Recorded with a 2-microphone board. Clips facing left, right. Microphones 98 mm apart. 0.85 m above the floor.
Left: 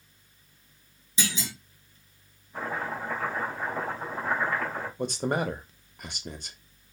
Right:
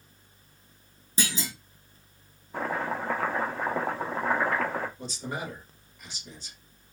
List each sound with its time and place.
1.2 s a clunk: 45° right (ahead or behind), 0.9 m
2.5 s chopping: 75° right (ahead or behind), 0.7 m
5.0 s a man speaking: 60° left (ahead or behind), 0.5 m